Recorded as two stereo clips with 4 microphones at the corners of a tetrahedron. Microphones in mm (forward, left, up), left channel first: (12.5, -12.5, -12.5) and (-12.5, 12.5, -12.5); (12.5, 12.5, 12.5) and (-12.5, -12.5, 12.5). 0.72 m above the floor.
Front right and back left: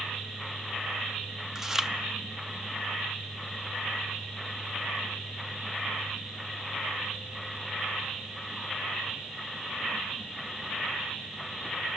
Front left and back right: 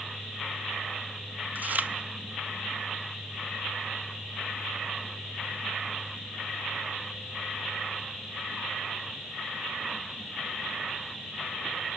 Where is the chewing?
150° right, 0.8 m.